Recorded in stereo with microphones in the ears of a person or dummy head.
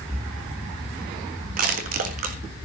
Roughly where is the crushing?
Right.